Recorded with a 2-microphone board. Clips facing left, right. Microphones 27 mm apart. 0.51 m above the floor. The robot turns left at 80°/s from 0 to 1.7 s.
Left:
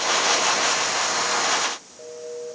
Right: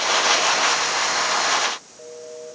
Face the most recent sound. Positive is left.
No sound to turn to.